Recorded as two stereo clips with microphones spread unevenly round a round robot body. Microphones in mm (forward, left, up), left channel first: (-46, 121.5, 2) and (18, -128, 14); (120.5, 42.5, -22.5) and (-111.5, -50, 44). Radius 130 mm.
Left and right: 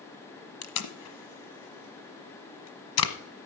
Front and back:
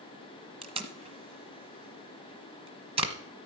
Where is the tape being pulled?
130° left, 1.1 m.